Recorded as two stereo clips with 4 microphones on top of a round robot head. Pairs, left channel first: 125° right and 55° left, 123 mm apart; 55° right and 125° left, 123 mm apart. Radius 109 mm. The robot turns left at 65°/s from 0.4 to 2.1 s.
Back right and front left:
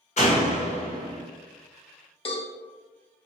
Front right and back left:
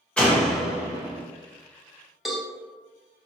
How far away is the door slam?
About 1.7 m.